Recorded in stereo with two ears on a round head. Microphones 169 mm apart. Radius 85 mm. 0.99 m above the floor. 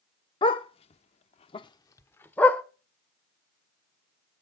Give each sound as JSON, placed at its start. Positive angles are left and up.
{"t": 0.4, "sound": "a dog barking", "side_deg": 25, "distance_m": 0.9}